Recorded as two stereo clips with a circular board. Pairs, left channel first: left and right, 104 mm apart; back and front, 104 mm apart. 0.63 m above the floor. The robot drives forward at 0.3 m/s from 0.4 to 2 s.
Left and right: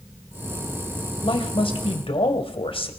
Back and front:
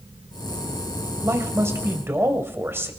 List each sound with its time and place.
1.2 s a man speaking: 60° left, 2.5 m; by 2.9 s 65° left, 2.5 m